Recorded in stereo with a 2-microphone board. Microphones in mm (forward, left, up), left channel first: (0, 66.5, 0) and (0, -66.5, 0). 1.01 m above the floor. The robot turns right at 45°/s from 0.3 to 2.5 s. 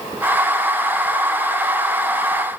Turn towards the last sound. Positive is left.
No sound to turn to.